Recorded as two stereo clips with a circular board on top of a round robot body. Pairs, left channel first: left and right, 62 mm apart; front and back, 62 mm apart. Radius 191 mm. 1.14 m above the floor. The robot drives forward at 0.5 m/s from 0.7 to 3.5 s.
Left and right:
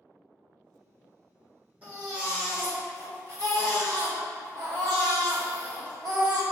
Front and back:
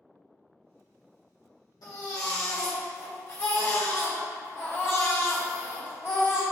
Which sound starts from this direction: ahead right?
A baby crying, at 1.8 s.